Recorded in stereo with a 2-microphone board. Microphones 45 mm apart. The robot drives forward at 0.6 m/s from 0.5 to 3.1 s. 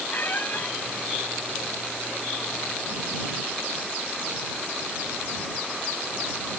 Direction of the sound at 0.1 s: 45° left (ahead or behind).